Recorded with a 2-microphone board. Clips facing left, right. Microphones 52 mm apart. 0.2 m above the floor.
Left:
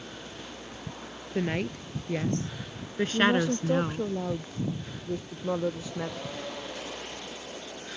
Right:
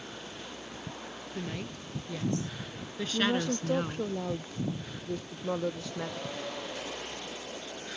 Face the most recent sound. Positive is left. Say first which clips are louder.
# left 4 dB
turn(degrees=10)  # may be behind; listen again after turning